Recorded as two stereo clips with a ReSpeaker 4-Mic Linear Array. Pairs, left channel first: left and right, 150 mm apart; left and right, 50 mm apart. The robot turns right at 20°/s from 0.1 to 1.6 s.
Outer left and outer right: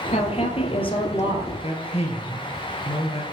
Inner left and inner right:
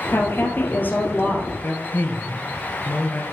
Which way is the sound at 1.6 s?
45° left (ahead or behind).